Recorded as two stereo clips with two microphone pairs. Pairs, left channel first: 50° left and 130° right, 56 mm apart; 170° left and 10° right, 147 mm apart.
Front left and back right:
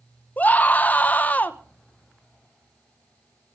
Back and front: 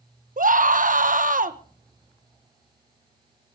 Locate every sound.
0.4 s a scream: 5° right, 1.0 m